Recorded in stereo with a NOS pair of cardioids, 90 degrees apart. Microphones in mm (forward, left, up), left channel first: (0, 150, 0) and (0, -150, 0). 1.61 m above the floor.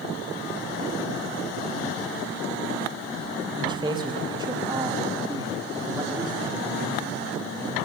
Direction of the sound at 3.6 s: 15° right.